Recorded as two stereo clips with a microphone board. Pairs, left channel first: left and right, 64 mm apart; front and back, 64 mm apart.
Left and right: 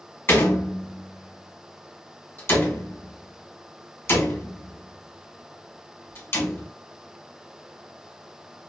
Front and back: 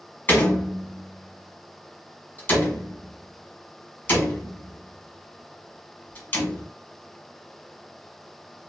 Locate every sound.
0.3 s a door slam: 50° left, 1.1 m